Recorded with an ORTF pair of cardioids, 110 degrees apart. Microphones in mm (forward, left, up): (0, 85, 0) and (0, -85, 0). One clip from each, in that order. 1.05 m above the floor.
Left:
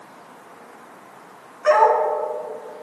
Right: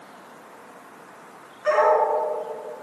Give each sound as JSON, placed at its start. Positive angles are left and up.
{"t": 1.6, "sound": "a dog barking", "azimuth_deg": 40, "distance_m": 3.0}